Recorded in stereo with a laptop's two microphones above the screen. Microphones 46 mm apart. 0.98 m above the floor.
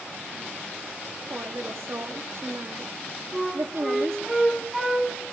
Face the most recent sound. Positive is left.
turn(degrees=-5)  # may be behind; listen again after turning